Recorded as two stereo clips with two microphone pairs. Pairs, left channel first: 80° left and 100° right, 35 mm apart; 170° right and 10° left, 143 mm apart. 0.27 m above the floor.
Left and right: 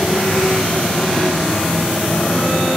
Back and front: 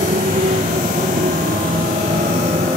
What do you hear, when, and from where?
0.0 s a motorcycle: 10° left